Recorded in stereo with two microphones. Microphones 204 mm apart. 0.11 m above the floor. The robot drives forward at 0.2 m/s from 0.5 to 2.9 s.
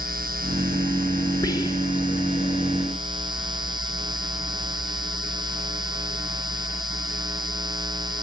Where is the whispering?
15° left (ahead or behind), 1.7 m; by 2.1 s 20° left (ahead or behind), 1.6 m.